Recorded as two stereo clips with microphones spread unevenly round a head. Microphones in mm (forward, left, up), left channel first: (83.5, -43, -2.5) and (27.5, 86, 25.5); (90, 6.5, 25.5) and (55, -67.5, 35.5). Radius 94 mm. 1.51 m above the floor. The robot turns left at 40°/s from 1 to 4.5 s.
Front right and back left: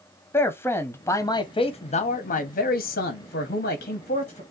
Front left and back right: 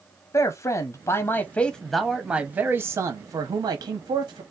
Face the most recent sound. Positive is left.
turn(degrees=-130)